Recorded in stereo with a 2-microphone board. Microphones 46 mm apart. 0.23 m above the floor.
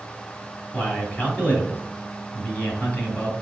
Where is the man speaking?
35° left (ahead or behind), 1.8 m.